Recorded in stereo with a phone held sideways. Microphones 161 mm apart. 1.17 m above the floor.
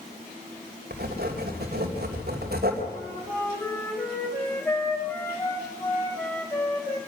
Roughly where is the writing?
Right.